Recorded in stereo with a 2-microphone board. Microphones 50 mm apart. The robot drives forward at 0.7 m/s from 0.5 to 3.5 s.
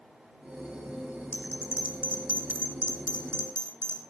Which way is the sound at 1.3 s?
35° right (ahead or behind).